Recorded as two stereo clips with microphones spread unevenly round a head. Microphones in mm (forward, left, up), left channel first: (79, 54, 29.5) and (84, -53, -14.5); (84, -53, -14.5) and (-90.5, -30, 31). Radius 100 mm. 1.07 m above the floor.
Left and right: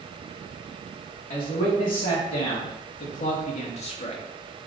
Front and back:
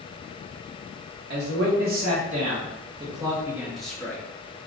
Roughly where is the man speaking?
Behind left.